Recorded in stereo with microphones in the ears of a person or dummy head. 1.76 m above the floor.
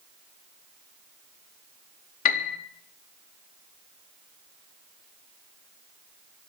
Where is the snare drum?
I don't hear a snare drum.